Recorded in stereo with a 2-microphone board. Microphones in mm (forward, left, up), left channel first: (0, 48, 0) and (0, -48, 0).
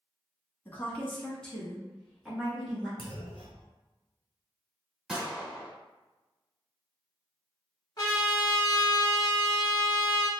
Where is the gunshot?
5° right (ahead or behind), 1.9 m.